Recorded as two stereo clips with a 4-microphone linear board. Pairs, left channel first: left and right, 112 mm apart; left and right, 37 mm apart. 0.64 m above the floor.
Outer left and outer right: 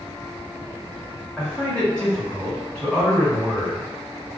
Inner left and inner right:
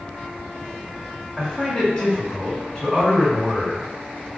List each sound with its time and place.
1.4 s a man speaking: 10° left (ahead or behind), 1.8 m